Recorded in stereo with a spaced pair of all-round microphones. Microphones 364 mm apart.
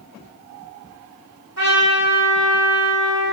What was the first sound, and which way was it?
A trumpet, 45° right (ahead or behind).